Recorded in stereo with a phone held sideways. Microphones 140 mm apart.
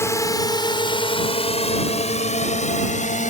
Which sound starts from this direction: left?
A drone, at 0.0 s.